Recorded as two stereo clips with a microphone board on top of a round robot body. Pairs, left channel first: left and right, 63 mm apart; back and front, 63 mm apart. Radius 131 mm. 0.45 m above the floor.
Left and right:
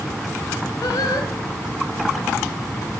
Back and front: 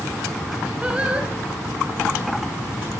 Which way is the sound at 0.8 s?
75° left.